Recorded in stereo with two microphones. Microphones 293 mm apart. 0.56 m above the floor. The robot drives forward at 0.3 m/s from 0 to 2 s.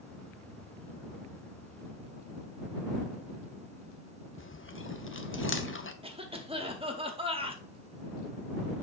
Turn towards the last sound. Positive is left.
turn(degrees=-20)  # may be behind; listen again after turning